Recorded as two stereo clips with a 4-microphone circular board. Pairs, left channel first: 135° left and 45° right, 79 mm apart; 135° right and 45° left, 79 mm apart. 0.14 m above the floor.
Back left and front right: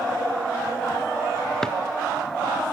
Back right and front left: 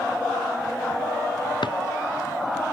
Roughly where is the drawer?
Behind right.